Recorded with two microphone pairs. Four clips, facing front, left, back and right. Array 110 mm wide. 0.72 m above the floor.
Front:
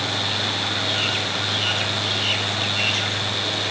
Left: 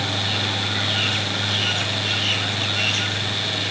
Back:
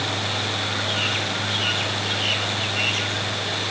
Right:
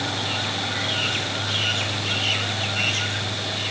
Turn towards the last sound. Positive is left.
No sound to turn to.